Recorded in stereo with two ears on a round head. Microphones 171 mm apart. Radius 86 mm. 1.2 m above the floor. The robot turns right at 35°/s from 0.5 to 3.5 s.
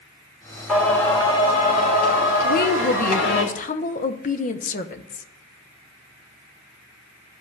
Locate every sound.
0.7 s singing: 5° left, 3.5 m; by 3.4 s 100° left, 3.5 m
2.4 s a woman speaking: 85° left, 0.8 m; by 5.3 s 120° left, 0.8 m